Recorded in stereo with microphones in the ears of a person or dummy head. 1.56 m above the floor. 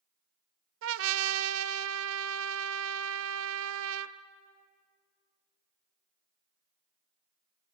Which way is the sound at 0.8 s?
75° right (ahead or behind).